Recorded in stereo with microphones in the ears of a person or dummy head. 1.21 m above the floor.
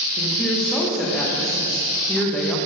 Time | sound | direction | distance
0.2 | a woman speaking | centre (ahead or behind) | 0.7 m